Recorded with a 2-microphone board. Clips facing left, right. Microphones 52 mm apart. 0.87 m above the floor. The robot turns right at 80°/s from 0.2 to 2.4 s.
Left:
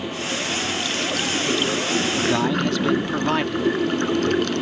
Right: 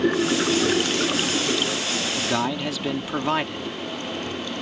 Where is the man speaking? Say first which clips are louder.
Left 3 dB; 15° left (ahead or behind); by 3.7 s centre (ahead or behind).